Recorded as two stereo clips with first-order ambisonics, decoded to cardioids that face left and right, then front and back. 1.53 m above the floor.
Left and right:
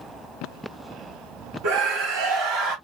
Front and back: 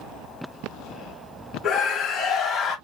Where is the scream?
70° right, 1.2 m; by 2.8 s 80° right, 1.7 m.